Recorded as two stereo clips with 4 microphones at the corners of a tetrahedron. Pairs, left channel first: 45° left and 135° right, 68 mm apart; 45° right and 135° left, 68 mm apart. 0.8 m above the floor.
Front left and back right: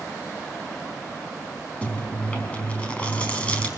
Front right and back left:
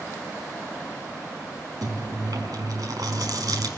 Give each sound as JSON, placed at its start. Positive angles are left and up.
{"t": 1.8, "sound": "chewing", "azimuth_deg": 115, "distance_m": 4.5}